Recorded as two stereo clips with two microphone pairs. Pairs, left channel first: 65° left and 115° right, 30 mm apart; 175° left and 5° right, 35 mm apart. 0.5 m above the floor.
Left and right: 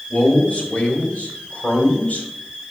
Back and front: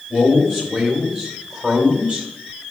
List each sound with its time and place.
0.1 s a man speaking: 85° left, 2.5 m; by 2.3 s 55° left, 2.5 m